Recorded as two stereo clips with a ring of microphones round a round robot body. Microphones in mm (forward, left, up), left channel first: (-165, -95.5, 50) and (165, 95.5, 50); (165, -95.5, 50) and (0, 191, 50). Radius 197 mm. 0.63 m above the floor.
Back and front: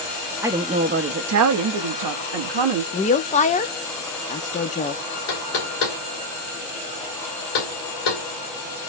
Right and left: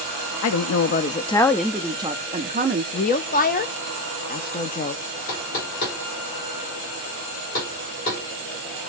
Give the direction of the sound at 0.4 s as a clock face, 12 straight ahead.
2 o'clock.